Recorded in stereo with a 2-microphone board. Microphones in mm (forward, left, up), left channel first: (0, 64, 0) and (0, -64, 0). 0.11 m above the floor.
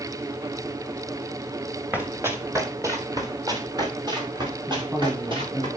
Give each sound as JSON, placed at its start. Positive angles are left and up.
{"t": 1.9, "sound": "running footsteps", "side_deg": -15, "distance_m": 2.0}
{"t": 4.7, "sound": "a man speaking", "side_deg": -10, "distance_m": 7.0}